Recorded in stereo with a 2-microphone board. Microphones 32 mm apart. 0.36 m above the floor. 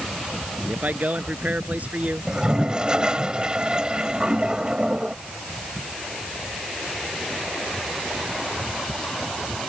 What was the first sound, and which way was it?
A man speaking, 60° right (ahead or behind).